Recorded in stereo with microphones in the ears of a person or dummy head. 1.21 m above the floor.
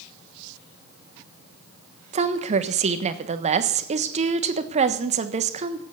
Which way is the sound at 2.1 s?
35° right (ahead or behind).